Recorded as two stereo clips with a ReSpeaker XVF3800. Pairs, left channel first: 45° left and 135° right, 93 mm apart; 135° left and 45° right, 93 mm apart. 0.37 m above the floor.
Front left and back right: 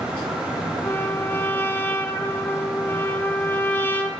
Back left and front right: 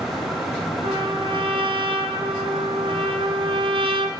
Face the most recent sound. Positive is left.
turn(degrees=-20)